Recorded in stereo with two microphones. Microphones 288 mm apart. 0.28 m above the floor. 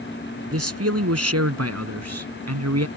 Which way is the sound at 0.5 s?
55° right (ahead or behind).